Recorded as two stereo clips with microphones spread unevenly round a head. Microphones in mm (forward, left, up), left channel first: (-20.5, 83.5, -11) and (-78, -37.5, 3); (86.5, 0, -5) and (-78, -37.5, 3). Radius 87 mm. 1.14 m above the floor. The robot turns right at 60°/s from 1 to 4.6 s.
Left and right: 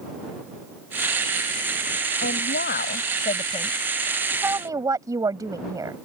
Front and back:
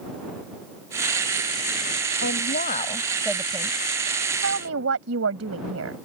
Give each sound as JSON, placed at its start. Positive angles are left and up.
{"t": 2.2, "sound": "a woman speaking", "azimuth_deg": 40}